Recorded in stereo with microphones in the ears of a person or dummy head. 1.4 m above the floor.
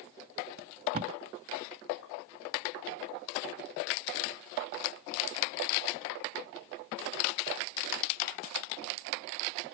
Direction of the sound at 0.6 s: 45° right (ahead or behind).